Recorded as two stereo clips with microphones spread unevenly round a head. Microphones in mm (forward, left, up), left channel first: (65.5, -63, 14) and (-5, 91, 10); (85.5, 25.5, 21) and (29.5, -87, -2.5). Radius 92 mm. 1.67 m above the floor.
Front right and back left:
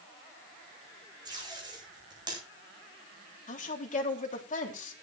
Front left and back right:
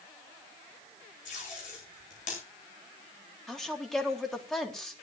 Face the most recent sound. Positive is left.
turn(degrees=-20)